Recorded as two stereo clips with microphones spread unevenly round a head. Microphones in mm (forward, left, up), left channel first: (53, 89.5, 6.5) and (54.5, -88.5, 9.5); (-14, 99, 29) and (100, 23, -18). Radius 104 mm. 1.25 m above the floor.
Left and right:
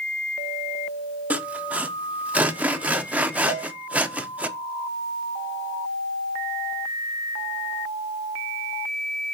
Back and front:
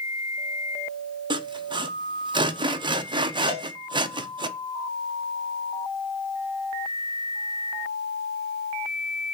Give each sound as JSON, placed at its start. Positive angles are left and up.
{"t": 1.3, "sound": "sawing", "azimuth_deg": -10, "distance_m": 0.9}
{"t": 3.5, "sound": "a cowbell", "azimuth_deg": 100, "distance_m": 3.5}